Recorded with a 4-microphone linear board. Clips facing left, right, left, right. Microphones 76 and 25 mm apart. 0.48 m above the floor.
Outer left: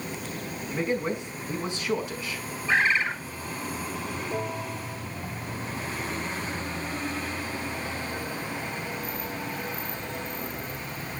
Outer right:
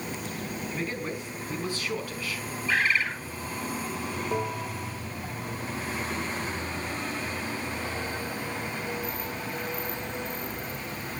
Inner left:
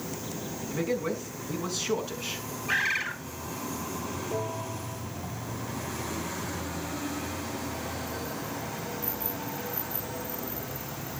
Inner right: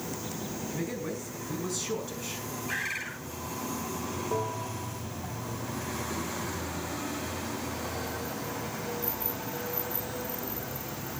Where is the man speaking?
25° left (ahead or behind), 5.5 m.